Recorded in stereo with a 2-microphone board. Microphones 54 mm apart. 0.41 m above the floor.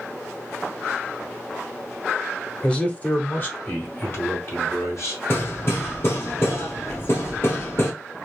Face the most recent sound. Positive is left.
turn(degrees=50)  # may be behind; listen again after turning